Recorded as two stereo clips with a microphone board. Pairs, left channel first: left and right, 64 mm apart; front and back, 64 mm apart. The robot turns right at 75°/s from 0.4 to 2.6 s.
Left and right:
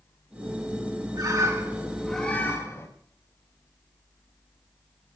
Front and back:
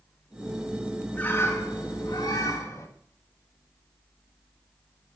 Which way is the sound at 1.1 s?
70° right.